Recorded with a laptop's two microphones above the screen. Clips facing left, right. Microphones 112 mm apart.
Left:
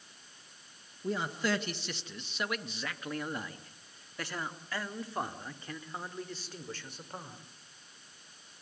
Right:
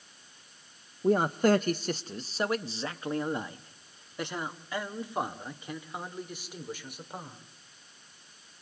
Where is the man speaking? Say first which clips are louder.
Right 9 dB; 45° right (ahead or behind), 0.9 m; by 7.4 s 10° right (ahead or behind), 4 m.